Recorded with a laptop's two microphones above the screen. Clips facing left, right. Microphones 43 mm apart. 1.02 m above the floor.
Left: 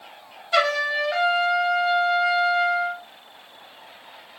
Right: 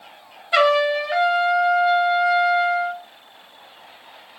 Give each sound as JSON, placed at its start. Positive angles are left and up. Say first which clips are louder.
{"t": 0.5, "sound": "a trumpet", "louder": "right 4 dB", "side_deg": -15, "distance_m": 1.2}